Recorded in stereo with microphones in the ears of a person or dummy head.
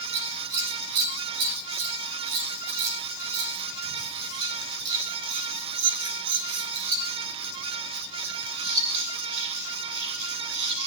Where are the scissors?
60° right (ahead or behind), 2 m.